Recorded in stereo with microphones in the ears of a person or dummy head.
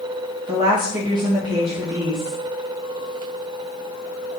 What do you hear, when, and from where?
0.5 s a woman speaking: 25° right (ahead or behind), 1.0 m